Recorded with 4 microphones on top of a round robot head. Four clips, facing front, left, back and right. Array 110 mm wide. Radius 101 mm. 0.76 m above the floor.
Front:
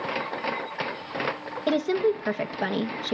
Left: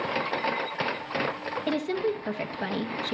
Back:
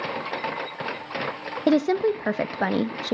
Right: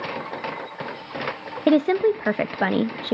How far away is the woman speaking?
About 0.7 m.